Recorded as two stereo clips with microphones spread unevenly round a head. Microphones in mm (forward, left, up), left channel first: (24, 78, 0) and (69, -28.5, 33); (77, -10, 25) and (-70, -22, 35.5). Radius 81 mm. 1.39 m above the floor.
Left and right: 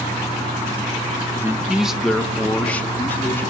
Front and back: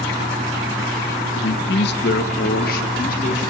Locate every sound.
1.4 s a man speaking: straight ahead, 1.1 m; by 3.4 s 40° left, 3.5 m